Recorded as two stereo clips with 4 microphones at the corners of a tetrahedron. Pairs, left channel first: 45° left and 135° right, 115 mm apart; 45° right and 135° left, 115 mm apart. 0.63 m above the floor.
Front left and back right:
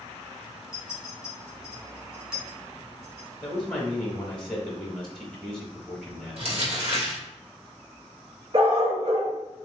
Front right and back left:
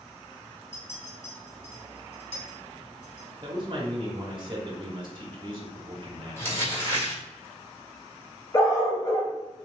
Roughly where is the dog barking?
Right.